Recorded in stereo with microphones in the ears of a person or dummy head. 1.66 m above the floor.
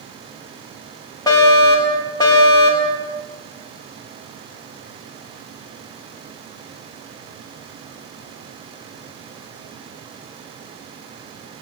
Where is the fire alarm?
15° left (ahead or behind), 4 m.